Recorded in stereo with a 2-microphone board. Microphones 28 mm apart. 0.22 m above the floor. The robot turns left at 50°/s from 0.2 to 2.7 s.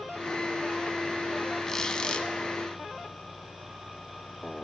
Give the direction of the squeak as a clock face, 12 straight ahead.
7 o'clock.